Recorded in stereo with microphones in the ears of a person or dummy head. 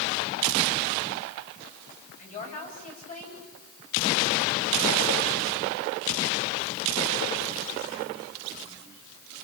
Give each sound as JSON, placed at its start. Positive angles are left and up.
{"t": 2.2, "sound": "a woman speaking", "side_deg": 40, "distance_m": 8.5}